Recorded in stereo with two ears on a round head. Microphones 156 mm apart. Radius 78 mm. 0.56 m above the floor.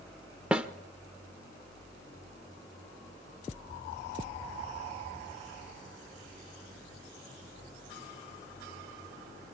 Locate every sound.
0.5 s a snare drum: 5° right (ahead or behind), 0.7 m